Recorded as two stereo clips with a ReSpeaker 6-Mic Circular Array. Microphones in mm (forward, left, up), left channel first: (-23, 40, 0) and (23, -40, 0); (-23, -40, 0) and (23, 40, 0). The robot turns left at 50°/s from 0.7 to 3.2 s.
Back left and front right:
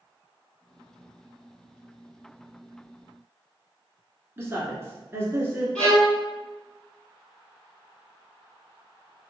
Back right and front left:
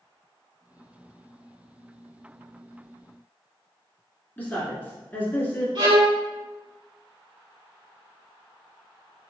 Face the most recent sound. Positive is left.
turn(degrees=35)